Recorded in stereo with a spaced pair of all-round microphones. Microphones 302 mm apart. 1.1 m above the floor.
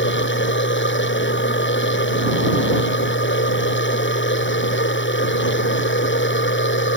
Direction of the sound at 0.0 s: 40° left (ahead or behind).